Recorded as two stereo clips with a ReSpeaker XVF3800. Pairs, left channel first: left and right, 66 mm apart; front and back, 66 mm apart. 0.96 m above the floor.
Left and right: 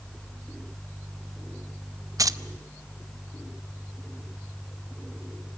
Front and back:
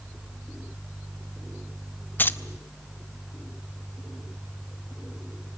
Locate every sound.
2.2 s keys jangling: 60° right, 0.7 m